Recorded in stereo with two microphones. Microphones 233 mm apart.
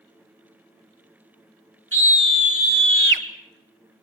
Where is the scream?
65° right (ahead or behind), 3.5 m; by 3.2 s 55° right (ahead or behind), 1.8 m.